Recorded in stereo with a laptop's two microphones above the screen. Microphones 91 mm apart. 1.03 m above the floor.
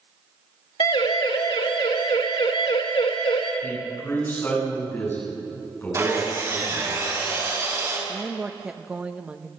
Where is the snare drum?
I don't hear a snare drum.